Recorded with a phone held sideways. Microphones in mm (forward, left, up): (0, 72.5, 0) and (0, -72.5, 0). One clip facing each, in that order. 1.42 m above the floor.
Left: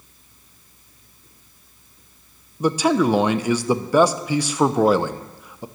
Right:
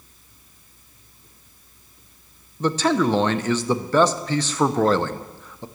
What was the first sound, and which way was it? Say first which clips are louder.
A man speaking: left 2 dB; 10° left (ahead or behind).